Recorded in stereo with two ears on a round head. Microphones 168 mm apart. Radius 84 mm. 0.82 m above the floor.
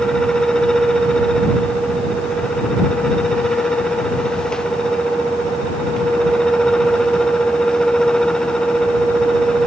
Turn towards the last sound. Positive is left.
No sound to turn to.